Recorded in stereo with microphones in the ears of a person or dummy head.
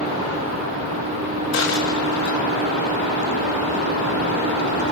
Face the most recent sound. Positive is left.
turn(degrees=70)  # may be behind; listen again after turning